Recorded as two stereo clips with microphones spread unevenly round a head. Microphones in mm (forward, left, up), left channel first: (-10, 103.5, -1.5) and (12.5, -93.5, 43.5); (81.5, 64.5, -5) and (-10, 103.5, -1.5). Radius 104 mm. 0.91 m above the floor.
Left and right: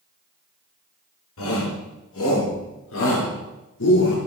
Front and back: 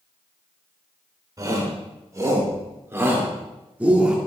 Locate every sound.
1.4 s a shout: 105° left, 3 m; by 4.2 s 75° left, 2.0 m